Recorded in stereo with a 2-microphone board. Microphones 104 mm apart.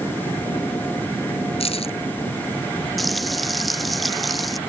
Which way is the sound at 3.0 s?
Centre (ahead or behind).